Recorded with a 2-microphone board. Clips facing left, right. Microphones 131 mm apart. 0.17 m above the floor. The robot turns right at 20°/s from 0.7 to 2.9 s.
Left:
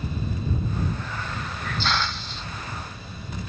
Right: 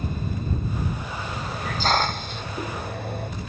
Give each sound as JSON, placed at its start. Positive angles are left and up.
{"t": 1.0, "sound": "a hiss", "side_deg": -25}